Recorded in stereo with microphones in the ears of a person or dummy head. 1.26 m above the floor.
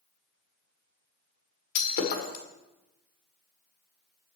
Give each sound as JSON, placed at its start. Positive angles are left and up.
{"t": 1.8, "sound": "breaking glass", "side_deg": 50, "distance_m": 1.5}